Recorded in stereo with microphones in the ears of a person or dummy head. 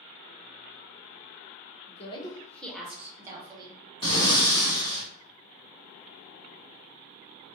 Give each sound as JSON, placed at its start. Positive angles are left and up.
{"t": 1.9, "sound": "a woman speaking", "side_deg": 40, "distance_m": 0.6}
{"t": 4.0, "sound": "breathing", "side_deg": 30, "distance_m": 1.0}